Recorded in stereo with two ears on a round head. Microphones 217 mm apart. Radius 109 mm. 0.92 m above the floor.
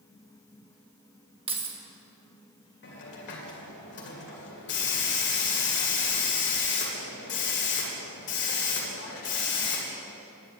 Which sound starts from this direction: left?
A hiss, at 2.8 s.